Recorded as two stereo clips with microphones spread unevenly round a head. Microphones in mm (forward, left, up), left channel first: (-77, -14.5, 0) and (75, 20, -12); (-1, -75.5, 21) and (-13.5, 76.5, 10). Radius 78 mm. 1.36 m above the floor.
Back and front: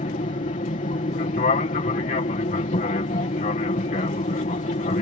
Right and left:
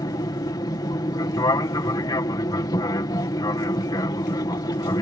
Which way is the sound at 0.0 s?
140° right.